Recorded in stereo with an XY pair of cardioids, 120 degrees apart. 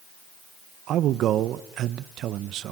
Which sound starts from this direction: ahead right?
A man speaking, at 0.9 s.